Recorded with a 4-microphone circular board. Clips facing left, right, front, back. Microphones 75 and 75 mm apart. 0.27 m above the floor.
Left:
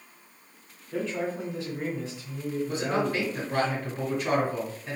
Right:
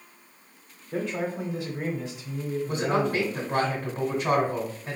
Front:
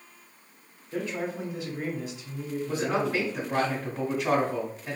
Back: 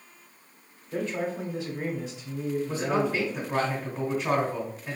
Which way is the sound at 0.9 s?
135° right.